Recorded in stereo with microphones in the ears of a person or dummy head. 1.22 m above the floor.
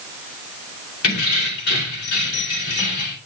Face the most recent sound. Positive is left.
turn(degrees=60)  # may be behind; listen again after turning